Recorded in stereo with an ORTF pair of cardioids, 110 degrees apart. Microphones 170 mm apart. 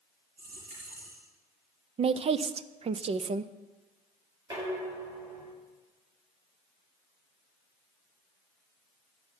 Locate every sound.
0.4 s a dropped coin: 65° right, 6 m
2.0 s a woman speaking: 35° right, 0.7 m
4.5 s dishes clattering: 20° right, 7.5 m